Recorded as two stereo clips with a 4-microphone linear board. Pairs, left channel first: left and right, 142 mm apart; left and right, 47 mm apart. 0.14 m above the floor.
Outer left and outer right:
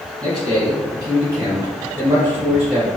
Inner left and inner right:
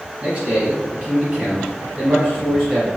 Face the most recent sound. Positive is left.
turn(degrees=-15)  # may be behind; listen again after turning